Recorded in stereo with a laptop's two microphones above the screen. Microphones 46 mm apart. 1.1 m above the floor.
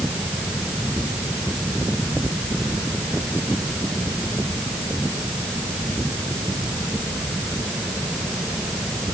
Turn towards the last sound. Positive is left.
No sound to turn to.